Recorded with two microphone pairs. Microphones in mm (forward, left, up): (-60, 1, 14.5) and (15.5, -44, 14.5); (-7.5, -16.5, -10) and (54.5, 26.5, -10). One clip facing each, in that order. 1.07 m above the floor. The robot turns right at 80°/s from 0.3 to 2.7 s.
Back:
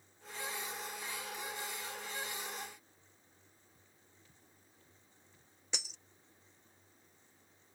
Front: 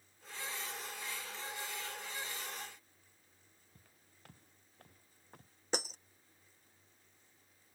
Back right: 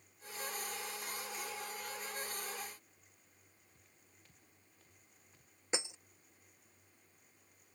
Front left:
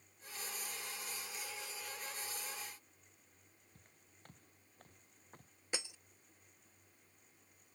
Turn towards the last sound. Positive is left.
turn(degrees=-75)